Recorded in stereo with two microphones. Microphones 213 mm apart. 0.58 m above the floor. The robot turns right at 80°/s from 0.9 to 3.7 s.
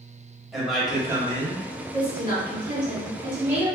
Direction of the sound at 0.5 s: Straight behind.